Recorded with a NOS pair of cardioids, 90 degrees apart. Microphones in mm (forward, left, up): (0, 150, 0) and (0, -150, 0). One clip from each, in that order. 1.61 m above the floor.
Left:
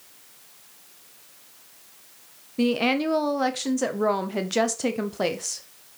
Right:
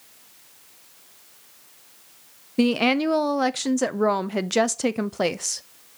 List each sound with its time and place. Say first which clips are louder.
2.6 s a woman speaking: right 2 dB; 35° right, 0.6 m